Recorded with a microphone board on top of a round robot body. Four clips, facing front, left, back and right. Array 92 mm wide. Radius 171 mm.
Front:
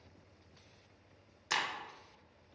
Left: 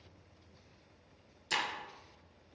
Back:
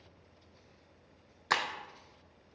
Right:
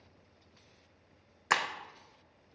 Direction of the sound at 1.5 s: 125° right.